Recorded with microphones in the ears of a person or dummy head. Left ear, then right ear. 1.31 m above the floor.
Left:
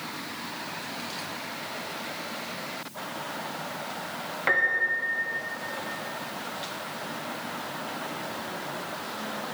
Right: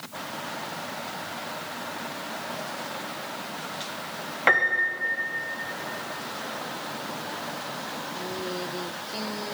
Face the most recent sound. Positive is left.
turn(degrees=-25)  # may be behind; listen again after turning